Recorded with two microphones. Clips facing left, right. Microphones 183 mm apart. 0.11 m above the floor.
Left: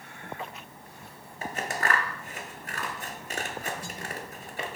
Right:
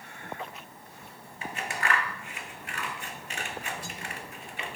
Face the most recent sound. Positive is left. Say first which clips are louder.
# left 2 dB
turn(degrees=40)  # may be behind; listen again after turning